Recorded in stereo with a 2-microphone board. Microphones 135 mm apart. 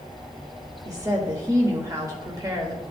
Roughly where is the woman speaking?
Right.